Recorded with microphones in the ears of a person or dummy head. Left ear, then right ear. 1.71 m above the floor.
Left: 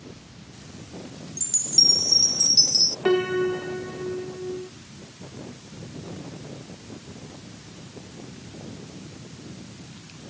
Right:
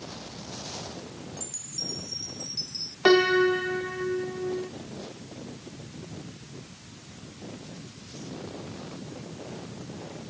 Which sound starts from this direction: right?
A piano, at 3.0 s.